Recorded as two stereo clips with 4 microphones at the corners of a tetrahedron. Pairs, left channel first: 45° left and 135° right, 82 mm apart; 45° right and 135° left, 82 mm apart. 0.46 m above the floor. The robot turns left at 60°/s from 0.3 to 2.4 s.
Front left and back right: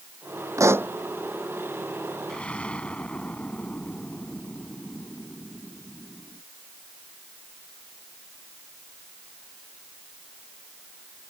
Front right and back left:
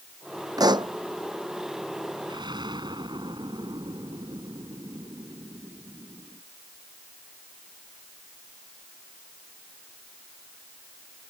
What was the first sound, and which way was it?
A pop, 175° left.